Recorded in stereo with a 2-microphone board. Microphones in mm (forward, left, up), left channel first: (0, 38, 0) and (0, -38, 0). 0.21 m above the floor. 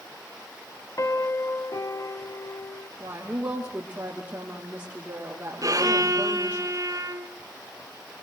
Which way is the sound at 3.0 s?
20° right (ahead or behind).